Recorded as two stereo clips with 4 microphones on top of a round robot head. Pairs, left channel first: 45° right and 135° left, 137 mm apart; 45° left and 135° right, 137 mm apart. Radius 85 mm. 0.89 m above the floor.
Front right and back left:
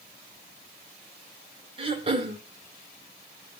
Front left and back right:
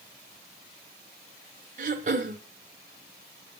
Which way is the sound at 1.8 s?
170° right.